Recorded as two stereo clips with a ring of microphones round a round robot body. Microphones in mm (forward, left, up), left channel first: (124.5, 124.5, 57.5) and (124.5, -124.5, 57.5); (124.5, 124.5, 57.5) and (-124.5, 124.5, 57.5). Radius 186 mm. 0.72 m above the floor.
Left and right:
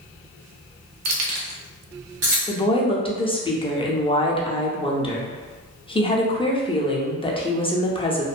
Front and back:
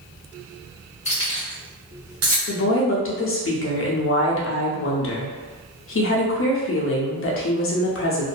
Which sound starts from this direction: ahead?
A woman speaking, at 2.5 s.